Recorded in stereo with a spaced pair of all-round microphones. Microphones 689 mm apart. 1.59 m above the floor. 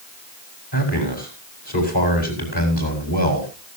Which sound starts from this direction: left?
A man speaking, at 0.7 s.